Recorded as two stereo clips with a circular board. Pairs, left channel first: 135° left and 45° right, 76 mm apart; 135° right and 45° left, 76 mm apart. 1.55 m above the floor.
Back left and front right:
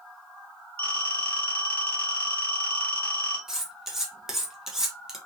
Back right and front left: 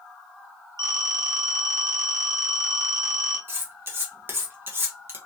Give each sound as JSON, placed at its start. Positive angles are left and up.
{"t": 0.8, "sound": "a phone ringing", "azimuth_deg": 70, "distance_m": 1.7}
{"t": 3.5, "sound": "cutlery clinking", "azimuth_deg": 35, "distance_m": 0.7}